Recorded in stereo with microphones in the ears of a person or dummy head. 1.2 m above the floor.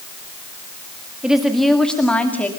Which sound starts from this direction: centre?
A woman speaking, at 1.2 s.